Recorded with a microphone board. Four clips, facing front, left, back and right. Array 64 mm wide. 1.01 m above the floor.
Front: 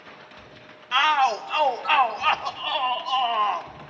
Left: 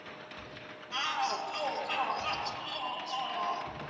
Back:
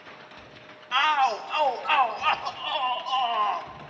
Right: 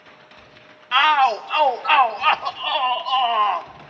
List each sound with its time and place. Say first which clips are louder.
0.9 s a shout: right 17 dB, front 2 dB; 80° right, 0.7 m